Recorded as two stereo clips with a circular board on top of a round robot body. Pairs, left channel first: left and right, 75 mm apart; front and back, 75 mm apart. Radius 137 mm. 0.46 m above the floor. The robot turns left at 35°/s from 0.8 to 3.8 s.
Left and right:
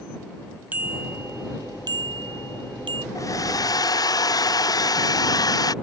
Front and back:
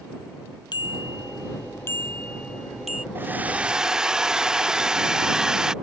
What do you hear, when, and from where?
0.7 s a bicycle bell: 20° right; by 3.0 s 100° right
3.1 s a hair dryer: 120° left; by 5.7 s 100° left